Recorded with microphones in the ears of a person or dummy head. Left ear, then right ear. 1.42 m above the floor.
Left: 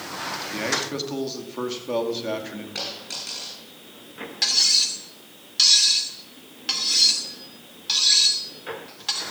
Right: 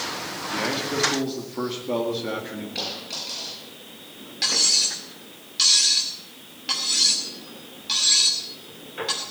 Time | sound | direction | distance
0.5 | a man speaking | 20° left (ahead or behind) | 2.5 m
2.8 | a dropped coin | 40° left (ahead or behind) | 6.5 m
4.4 | cutlery clinking | 20° left (ahead or behind) | 2.5 m